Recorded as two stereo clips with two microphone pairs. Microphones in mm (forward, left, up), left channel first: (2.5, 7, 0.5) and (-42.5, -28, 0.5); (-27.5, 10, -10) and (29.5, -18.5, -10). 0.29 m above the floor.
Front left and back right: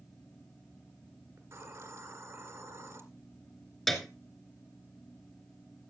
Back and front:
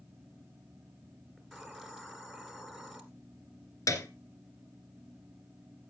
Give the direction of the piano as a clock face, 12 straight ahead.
8 o'clock.